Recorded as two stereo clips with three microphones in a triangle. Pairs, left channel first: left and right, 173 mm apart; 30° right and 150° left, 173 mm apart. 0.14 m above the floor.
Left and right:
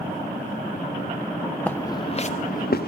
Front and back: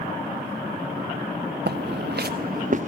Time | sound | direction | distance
1.7 | footsteps | 170° left | 0.6 m